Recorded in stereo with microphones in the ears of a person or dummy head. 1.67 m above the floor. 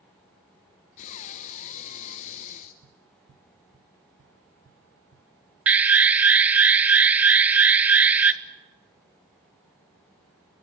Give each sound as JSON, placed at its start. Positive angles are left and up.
{"t": 1.0, "sound": "breathing", "side_deg": 35, "distance_m": 0.9}
{"t": 2.8, "sound": "tapping", "side_deg": -40, "distance_m": 1.2}
{"t": 5.7, "sound": "an alarm", "side_deg": -10, "distance_m": 0.7}